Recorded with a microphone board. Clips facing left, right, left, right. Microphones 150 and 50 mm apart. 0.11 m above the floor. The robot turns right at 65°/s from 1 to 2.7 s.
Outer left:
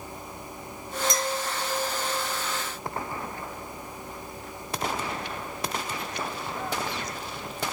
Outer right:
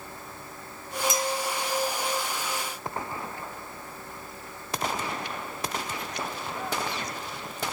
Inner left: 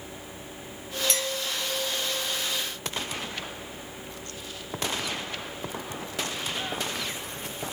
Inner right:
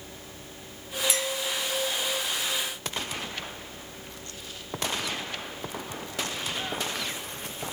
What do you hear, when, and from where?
1.1 s a clink: 10° right (ahead or behind), 1.1 m; by 1.3 s centre (ahead or behind), 1.1 m